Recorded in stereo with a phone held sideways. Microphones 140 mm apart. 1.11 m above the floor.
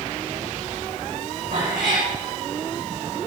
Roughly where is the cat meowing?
Right.